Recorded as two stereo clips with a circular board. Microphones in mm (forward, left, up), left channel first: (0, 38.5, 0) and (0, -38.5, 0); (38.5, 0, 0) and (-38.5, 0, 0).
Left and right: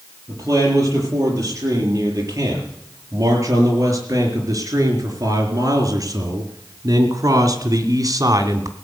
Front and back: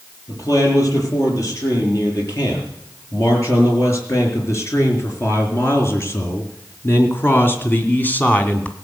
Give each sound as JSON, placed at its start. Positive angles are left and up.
{"t": 0.3, "sound": "a man speaking", "azimuth_deg": -45, "distance_m": 7.5}